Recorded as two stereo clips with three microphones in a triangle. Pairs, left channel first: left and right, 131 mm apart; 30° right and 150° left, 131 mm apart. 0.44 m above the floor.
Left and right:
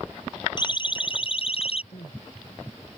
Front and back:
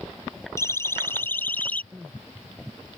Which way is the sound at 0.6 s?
35° left.